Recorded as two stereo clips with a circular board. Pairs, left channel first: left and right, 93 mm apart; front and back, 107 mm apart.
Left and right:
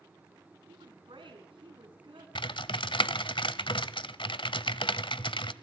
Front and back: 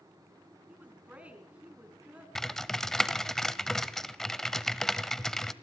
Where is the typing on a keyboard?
85° left, 0.9 m.